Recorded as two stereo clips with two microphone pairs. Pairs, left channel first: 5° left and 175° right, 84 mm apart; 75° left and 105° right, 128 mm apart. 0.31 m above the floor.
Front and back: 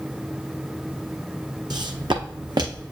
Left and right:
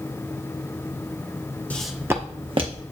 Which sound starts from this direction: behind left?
Footsteps, at 1.7 s.